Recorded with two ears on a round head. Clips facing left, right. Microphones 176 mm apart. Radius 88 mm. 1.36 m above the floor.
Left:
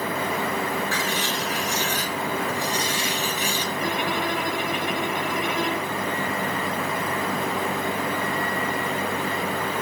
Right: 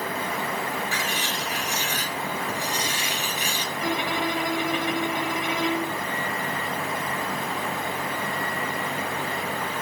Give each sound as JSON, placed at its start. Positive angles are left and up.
{"t": 0.9, "sound": "writing", "side_deg": -15, "distance_m": 3.5}
{"t": 3.8, "sound": "a violin", "side_deg": -70, "distance_m": 4.0}